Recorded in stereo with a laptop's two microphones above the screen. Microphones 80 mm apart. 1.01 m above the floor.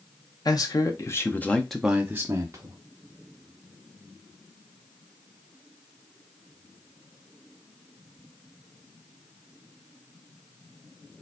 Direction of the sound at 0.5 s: 55° left (ahead or behind).